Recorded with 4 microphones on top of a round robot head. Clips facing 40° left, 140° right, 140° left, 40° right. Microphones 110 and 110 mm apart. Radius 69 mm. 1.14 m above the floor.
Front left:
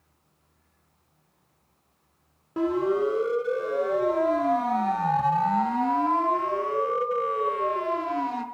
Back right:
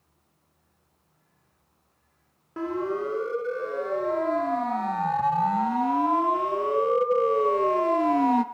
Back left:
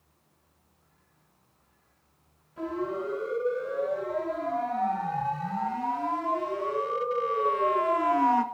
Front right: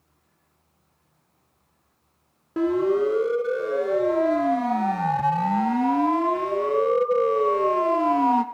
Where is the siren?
35° right, 5 m; by 8.4 s 110° right, 2 m.